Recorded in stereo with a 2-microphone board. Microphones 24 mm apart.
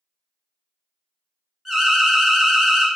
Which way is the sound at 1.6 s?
5° right (ahead or behind).